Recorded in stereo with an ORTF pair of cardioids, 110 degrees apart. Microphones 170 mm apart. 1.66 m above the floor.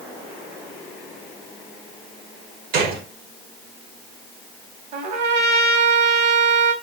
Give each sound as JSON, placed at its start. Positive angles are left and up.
{"t": 2.7, "sound": "a gunshot", "azimuth_deg": -70, "distance_m": 1.1}
{"t": 4.9, "sound": "a trumpet", "azimuth_deg": -65, "distance_m": 1.3}